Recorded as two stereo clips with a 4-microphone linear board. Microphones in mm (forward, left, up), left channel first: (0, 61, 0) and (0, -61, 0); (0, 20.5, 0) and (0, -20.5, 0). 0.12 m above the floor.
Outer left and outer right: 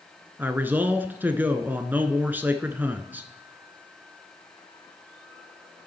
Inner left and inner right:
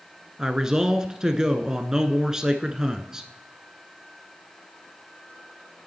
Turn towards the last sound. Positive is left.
turn(degrees=-15)  # may be behind; listen again after turning